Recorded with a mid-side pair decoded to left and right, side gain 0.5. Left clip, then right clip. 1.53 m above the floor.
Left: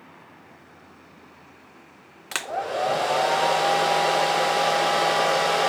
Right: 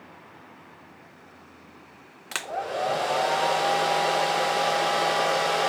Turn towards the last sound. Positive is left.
turn(degrees=15)